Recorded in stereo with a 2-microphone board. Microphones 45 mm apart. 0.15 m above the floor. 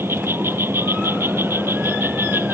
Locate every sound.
0.0 s an insect: 60° right (ahead or behind)